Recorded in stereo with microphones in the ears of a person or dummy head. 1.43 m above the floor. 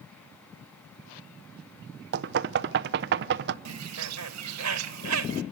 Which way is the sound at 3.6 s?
85° right.